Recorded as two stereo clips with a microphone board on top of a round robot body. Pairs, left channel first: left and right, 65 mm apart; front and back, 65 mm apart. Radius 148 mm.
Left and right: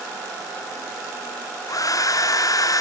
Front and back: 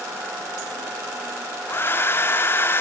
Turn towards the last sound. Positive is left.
turn(degrees=55)